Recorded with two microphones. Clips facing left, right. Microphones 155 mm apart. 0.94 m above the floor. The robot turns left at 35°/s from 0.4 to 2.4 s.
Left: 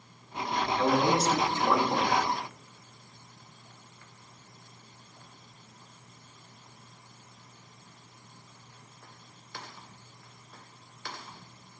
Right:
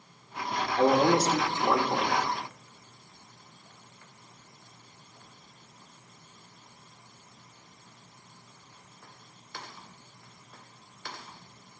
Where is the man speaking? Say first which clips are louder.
Right 4 dB; 130° right, 1.2 m; by 2.2 s straight behind, 1.2 m.